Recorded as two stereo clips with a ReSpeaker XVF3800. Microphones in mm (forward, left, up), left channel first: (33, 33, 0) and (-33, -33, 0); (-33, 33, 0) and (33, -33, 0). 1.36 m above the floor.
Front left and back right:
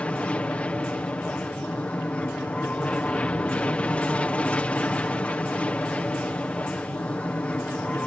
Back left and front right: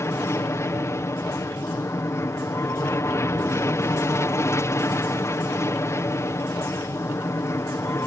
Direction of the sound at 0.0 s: 110° left.